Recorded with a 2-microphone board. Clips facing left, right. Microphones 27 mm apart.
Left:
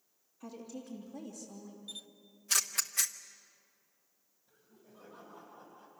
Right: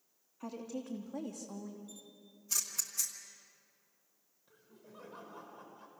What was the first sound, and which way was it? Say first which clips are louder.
A woman speaking: right 4 dB; 35° right (ahead or behind).